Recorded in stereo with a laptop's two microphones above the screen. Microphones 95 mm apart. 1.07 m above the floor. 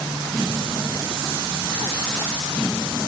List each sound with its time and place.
Only background noise.